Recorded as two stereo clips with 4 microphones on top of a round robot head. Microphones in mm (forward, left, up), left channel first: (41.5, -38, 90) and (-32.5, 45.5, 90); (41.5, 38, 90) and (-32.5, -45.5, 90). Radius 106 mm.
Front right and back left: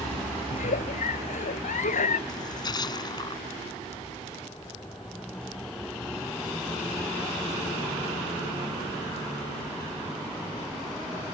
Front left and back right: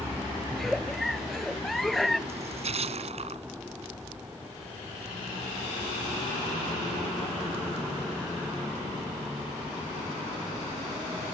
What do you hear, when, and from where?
0.5 s a giggle: 40° right
2.3 s a splash: 105° right